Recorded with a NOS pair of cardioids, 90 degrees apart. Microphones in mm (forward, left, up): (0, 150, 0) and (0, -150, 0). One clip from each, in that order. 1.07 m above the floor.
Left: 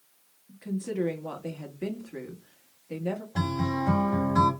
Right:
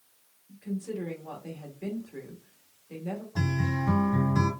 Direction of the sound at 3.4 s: 25° left.